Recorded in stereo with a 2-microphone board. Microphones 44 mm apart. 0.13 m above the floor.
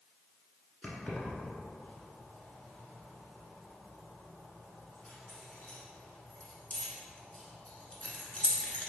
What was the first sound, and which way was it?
Keys jangling, 30° left (ahead or behind).